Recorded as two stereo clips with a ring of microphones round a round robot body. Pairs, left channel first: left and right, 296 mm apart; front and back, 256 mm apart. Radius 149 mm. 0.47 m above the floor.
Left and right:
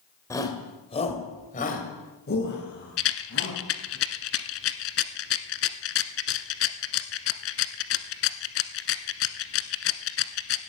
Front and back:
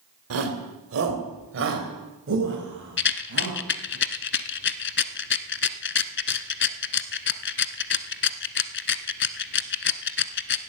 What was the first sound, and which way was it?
A shout, 170° left.